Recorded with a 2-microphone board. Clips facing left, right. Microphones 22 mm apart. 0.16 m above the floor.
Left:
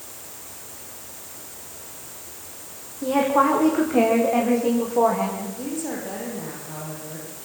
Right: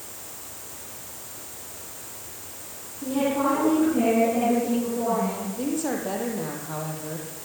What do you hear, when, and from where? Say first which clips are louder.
3.0 s a woman speaking: left 5 dB; 65° left (ahead or behind), 9.5 m; by 5.5 s 80° left, 10 m
5.6 s a woman speaking: right 3 dB; 20° right (ahead or behind), 5 m